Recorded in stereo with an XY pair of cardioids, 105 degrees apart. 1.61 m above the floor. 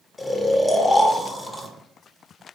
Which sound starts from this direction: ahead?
Snoring, at 0.2 s.